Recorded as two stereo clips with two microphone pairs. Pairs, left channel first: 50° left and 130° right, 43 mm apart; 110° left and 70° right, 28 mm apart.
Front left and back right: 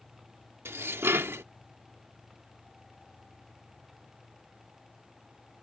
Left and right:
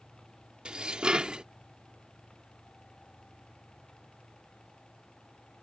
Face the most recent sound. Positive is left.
turn(degrees=-125)